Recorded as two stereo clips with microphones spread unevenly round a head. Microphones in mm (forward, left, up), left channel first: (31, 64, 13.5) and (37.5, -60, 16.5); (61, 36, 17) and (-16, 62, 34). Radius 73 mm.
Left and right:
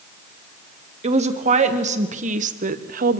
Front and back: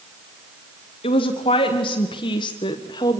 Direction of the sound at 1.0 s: 50° right.